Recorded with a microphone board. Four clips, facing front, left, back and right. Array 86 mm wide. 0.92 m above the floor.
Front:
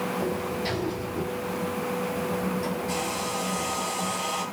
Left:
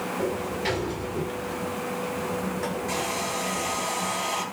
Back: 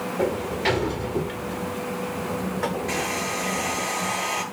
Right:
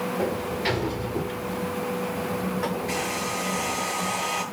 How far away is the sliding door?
About 2 m.